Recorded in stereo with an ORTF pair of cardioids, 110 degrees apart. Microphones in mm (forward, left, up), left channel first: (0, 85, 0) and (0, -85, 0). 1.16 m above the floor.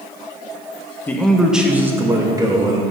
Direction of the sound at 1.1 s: 10° left.